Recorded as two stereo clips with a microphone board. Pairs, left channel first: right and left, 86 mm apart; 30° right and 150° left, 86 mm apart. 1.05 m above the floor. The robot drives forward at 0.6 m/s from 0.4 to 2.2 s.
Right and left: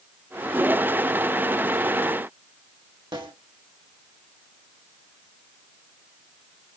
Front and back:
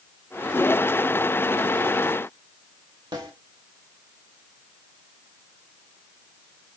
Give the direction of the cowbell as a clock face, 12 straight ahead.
No cowbell in this recording.